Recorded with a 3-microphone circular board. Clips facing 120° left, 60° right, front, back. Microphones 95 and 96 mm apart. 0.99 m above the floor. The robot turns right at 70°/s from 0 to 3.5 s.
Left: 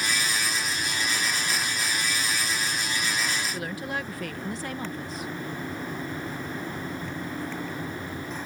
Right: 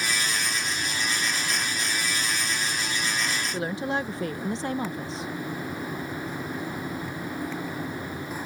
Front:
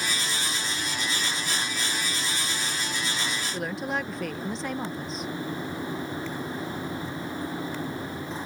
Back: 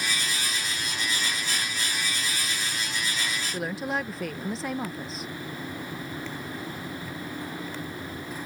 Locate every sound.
3.5 s a woman speaking: 95° right